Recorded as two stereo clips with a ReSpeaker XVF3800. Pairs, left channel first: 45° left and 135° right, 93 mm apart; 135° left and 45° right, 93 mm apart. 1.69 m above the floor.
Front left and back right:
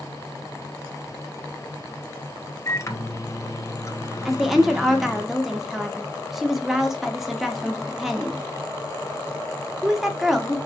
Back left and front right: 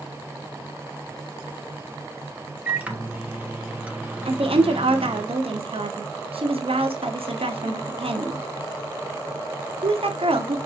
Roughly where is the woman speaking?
Ahead right.